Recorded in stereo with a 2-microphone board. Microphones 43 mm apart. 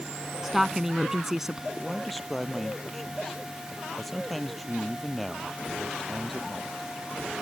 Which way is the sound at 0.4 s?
10° right (ahead or behind).